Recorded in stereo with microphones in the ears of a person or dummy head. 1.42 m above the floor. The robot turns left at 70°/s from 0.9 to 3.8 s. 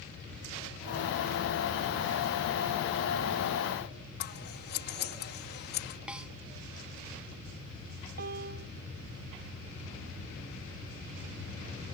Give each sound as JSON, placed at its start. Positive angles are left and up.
{"t": 4.2, "sound": "scissors", "side_deg": 55}
{"t": 6.1, "sound": "a snare drum", "side_deg": -5}
{"t": 8.2, "sound": "a piano", "side_deg": -55}